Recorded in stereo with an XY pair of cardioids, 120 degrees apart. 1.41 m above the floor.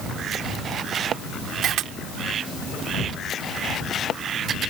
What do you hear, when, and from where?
1.6 s a camera shutter: 70° right